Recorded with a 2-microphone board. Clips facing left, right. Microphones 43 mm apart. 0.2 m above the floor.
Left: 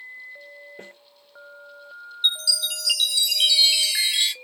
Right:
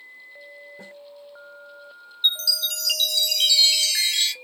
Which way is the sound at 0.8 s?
45° left (ahead or behind).